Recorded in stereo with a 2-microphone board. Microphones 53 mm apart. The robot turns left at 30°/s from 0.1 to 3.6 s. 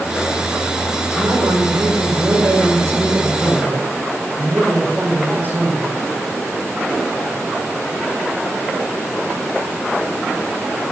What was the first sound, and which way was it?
A man speaking, 60° right.